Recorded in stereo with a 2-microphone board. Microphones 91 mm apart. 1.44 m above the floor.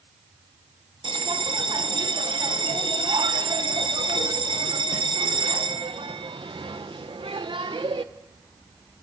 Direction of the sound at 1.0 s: 65° right (ahead or behind).